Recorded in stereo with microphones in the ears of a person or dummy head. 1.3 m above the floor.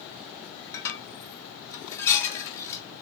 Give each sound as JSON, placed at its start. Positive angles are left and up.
{"t": 0.7, "sound": "dishes clattering", "side_deg": 20, "distance_m": 1.5}